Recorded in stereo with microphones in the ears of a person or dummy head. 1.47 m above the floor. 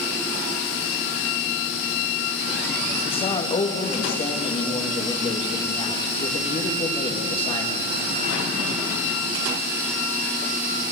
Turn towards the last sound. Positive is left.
turn(degrees=30)  # may be behind; listen again after turning